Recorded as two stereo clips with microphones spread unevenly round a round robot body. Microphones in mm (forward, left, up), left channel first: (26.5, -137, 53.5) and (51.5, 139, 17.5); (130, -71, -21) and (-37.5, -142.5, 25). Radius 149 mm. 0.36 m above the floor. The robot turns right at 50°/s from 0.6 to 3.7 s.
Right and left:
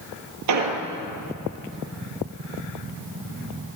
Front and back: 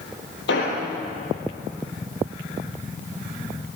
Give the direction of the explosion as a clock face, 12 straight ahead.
10 o'clock.